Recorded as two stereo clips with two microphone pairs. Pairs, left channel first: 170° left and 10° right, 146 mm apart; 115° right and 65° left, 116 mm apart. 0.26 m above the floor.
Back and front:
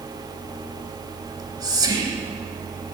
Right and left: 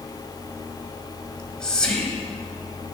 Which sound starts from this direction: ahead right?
Whispering, at 1.2 s.